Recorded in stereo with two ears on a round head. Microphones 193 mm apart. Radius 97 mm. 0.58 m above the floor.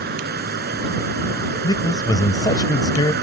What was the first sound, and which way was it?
Running water, 50° right (ahead or behind).